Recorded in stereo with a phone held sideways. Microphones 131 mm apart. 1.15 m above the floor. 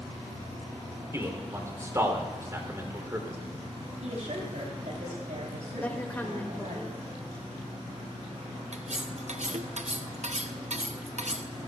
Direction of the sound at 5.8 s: 15° left (ahead or behind).